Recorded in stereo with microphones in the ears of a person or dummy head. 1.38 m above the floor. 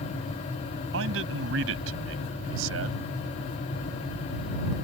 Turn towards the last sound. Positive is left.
turn(degrees=-80)